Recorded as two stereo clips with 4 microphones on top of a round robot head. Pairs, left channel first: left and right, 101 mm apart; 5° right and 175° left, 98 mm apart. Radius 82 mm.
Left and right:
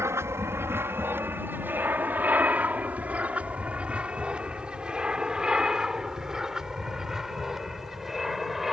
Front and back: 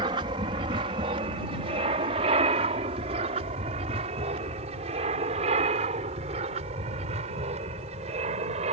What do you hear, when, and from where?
0.0 s an aircraft: 150° right; by 8.7 s straight behind